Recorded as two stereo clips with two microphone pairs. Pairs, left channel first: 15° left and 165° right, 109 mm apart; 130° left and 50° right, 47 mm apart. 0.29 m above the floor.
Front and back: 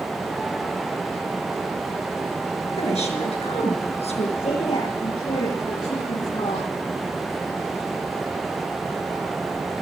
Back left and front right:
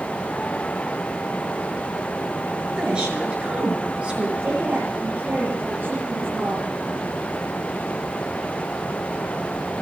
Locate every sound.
2.8 s a woman speaking: 20° left, 5.5 m
4.4 s a woman speaking: 5° left, 7 m